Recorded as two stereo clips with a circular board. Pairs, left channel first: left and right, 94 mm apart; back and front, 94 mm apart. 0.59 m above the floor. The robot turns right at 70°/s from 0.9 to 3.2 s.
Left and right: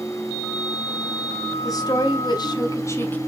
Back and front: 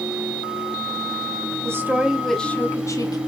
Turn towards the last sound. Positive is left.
turn(degrees=160)